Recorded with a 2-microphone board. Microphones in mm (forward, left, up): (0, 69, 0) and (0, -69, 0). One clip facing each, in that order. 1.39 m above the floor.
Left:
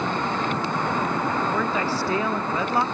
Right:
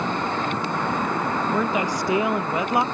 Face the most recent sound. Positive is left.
turn(degrees=-15)  # may be behind; listen again after turning